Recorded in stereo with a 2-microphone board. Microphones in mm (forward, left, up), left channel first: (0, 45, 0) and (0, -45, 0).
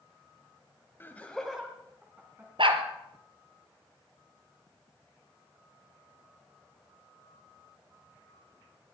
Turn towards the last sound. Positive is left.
turn(degrees=-65)  # may be behind; listen again after turning